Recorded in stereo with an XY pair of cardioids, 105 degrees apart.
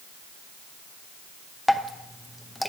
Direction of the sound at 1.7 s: 5° left.